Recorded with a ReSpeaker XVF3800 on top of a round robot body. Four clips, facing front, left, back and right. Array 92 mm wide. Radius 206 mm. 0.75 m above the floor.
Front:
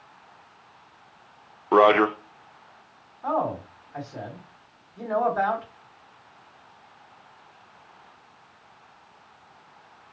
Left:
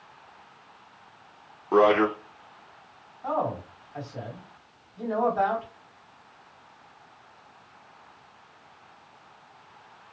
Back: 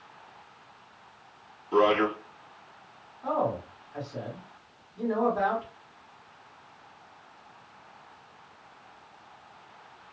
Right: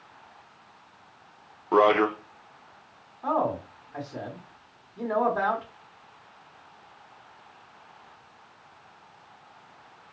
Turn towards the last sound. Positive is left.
turn(degrees=-90)